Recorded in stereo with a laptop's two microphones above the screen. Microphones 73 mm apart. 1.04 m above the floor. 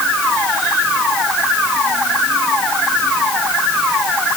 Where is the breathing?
No breathing in this recording.